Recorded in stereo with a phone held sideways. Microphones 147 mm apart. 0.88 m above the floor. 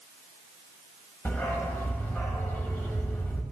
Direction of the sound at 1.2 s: 15° left (ahead or behind).